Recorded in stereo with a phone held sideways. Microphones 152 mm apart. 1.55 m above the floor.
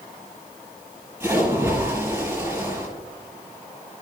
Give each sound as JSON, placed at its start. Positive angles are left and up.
{"t": 1.2, "sound": "a splash", "side_deg": -10, "distance_m": 5.0}